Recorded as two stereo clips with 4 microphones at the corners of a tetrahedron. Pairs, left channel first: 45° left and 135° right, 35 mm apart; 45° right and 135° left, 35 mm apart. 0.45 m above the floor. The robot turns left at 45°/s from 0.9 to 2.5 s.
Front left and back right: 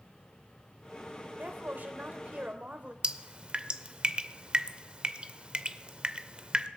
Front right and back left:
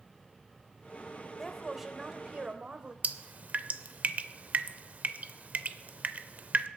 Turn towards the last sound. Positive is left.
turn(degrees=170)